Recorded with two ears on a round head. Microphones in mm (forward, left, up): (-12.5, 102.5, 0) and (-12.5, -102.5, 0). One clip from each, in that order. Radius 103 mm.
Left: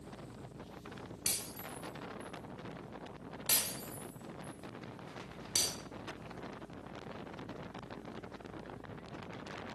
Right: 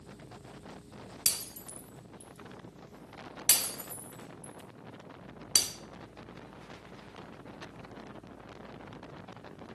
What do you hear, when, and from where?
1.3 s breaking glass: 35° right (ahead or behind), 1.0 m